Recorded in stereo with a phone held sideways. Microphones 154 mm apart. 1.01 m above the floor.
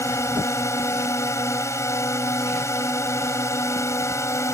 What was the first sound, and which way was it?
A drone, 20° left (ahead or behind).